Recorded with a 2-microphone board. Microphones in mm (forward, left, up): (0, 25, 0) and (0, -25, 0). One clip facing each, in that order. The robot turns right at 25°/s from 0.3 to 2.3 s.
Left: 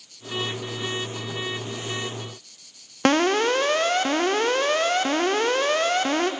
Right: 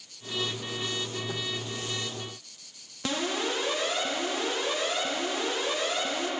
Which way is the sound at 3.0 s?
60° left (ahead or behind).